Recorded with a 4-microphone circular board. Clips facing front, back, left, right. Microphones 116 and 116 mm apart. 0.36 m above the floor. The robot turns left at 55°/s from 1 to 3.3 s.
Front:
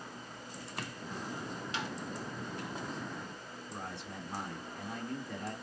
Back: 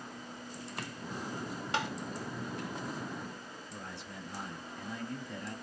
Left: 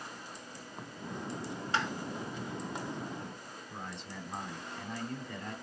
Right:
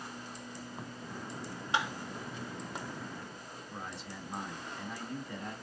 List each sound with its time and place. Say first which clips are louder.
1.7 s tapping: back 6 dB, right 1 dB; 165° right, 0.7 m; by 1.9 s 175° right, 0.7 m
3.7 s a man speaking: front 4 dB, even; 10° right, 3 m